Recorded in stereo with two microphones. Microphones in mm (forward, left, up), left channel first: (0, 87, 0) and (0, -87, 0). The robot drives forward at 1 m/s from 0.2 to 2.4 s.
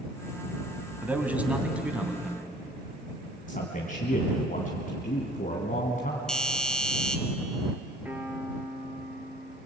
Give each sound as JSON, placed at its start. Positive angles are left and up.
{"t": 1.0, "sound": "a man speaking", "side_deg": -10, "distance_m": 2.0}
{"t": 3.5, "sound": "a man speaking", "side_deg": 50, "distance_m": 2.5}
{"t": 6.3, "sound": "a doorbell", "side_deg": 5, "distance_m": 1.5}
{"t": 8.1, "sound": "a piano", "side_deg": -10, "distance_m": 2.5}